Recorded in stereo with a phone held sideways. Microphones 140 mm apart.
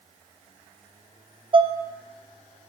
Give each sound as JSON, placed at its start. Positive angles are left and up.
{"t": 1.5, "sound": "dishes clattering", "side_deg": -35, "distance_m": 1.1}